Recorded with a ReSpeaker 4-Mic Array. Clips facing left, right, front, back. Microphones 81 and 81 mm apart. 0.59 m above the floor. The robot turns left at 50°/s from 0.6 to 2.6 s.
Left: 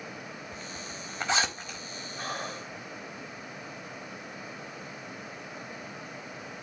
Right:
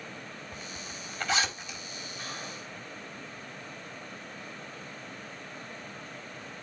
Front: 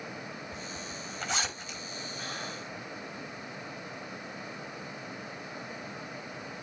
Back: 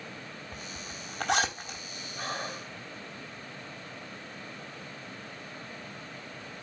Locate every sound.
0.5 s a zipper: 170° right, 4 m; by 1.8 s 130° left, 4 m
2.2 s breathing: 130° left, 2.5 m; by 2.7 s 110° left, 2.5 m